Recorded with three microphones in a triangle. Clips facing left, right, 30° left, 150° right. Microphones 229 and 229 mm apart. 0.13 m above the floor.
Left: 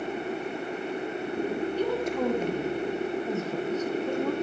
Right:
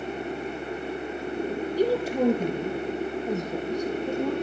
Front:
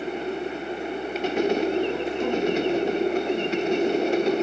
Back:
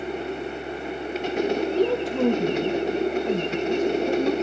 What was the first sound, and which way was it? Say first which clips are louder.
A woman speaking: right 7 dB, back 3 dB; 145° right.